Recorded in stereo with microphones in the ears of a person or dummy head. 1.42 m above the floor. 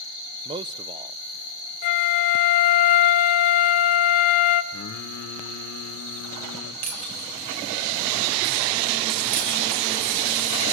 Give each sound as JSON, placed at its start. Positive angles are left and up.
{"t": 0.5, "sound": "a man speaking", "side_deg": -25, "distance_m": 0.6}
{"t": 1.8, "sound": "a flute", "side_deg": 30, "distance_m": 0.8}
{"t": 4.7, "sound": "singing", "side_deg": 60, "distance_m": 1.3}
{"t": 6.8, "sound": "breaking glass", "side_deg": -45, "distance_m": 4.0}